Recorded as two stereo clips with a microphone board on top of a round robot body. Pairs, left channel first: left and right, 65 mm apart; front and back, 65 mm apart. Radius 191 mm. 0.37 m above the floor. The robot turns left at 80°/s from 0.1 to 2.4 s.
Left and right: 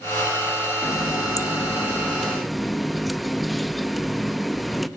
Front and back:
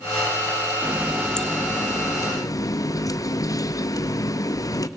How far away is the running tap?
About 0.7 m.